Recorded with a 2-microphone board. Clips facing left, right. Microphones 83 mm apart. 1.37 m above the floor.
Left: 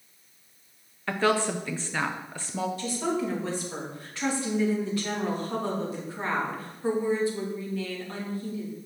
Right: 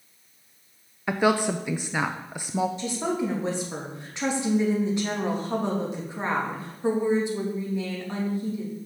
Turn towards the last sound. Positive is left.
turn(degrees=-20)  # may be behind; listen again after turning